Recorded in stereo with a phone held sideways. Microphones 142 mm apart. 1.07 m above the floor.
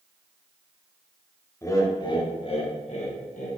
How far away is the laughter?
About 1.1 m.